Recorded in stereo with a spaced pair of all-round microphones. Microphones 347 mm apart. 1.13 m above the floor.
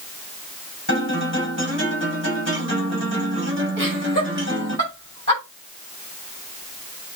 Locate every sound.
0.9 s a guitar: 35° right (ahead or behind), 5.5 m
3.8 s laughter: 35° right (ahead or behind), 6 m